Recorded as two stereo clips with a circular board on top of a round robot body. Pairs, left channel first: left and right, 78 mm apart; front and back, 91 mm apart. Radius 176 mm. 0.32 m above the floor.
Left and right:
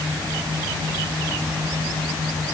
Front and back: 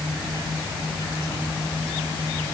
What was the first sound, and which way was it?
Only background noise.